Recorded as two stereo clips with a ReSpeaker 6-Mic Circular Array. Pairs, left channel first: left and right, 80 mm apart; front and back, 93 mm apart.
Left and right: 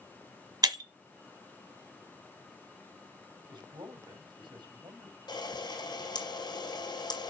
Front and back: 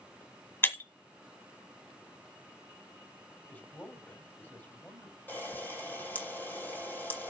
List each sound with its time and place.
0.6 s breaking glass: 65° right, 1.3 m
3.5 s a man speaking: 70° right, 4 m
5.3 s a camera shutter: 70° left, 4 m